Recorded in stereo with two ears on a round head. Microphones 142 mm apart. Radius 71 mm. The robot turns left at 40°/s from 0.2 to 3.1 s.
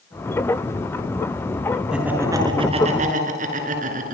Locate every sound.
1.9 s laughter: 5° right (ahead or behind), 6.5 m; by 4.2 s 50° right (ahead or behind), 6.5 m